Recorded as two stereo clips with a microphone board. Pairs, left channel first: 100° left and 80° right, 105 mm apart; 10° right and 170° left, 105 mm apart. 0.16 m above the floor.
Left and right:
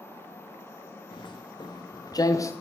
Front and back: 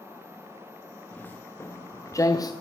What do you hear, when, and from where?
1.1 s footsteps: 60° left, 2 m; by 2.5 s 40° left, 1.4 m